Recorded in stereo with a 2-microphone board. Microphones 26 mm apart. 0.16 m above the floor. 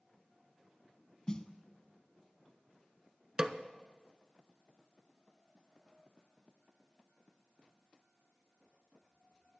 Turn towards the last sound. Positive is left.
turn(degrees=-30)  # may be behind; listen again after turning